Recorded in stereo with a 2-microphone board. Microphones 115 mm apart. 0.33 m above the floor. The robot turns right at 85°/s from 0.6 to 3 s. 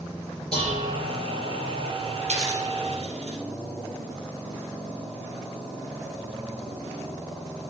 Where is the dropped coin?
55° right (ahead or behind), 3.5 m.